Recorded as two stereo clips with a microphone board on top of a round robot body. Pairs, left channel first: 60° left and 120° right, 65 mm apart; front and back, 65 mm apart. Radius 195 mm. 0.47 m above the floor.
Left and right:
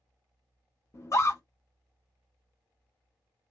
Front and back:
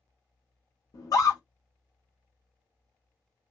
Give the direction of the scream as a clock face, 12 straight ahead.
11 o'clock.